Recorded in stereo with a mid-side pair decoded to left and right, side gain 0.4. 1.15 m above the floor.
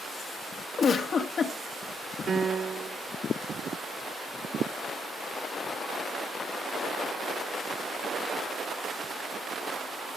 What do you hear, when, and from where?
0.8 s a giggle: 55° left, 2.0 m
2.3 s a piano: 50° right, 0.6 m